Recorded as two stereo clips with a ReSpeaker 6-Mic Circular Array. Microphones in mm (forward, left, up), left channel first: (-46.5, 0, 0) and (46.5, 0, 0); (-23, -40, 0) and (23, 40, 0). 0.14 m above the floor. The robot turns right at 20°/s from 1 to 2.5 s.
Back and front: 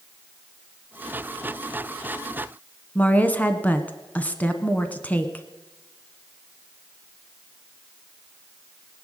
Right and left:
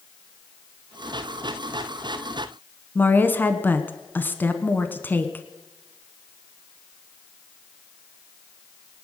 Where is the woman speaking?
140° right, 1.1 m.